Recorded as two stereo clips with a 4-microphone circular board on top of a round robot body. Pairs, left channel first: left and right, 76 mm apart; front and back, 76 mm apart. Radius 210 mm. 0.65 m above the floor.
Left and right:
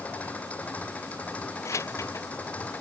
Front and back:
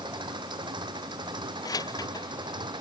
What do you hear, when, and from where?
0.0 s an engine running: 160° left
1.6 s keys jangling: 40° left